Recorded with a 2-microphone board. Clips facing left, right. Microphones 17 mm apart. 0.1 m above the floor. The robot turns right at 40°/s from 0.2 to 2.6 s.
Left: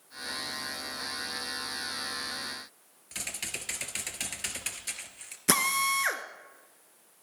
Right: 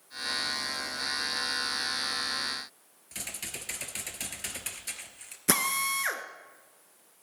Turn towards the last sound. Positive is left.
turn(degrees=15)  # may be behind; listen again after turning